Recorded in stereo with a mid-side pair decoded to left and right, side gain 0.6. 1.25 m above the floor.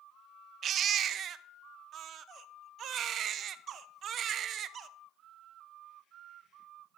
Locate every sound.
0.6 s a baby crying: 45° right, 0.7 m